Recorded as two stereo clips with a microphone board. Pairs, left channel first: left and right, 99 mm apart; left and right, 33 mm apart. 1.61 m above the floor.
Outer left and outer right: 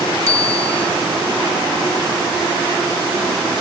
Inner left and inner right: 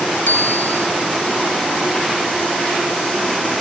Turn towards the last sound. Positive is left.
turn(degrees=75)  # may be behind; listen again after turning